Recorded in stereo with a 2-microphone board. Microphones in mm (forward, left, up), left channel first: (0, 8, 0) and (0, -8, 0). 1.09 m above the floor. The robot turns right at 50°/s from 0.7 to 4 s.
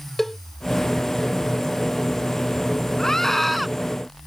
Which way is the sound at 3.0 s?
145° left.